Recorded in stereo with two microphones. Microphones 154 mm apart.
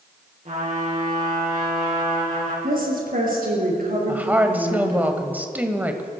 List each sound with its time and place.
0.5 s a trumpet: 55° right (ahead or behind), 6.5 m
2.6 s a woman speaking: 65° right (ahead or behind), 5.5 m
4.1 s a woman speaking: 10° right (ahead or behind), 1.3 m